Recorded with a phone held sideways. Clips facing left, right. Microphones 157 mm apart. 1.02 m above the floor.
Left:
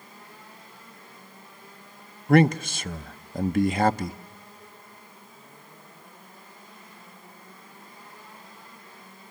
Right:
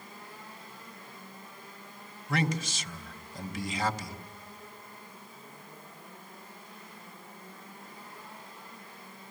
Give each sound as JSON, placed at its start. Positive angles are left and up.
{"t": 2.3, "sound": "a man speaking", "side_deg": 60, "distance_m": 0.8}